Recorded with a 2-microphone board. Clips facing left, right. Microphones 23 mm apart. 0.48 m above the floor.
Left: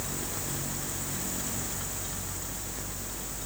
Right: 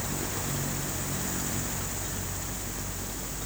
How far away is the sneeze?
I don't hear a sneeze.